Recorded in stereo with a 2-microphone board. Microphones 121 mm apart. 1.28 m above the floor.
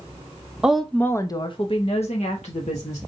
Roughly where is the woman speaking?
Centre.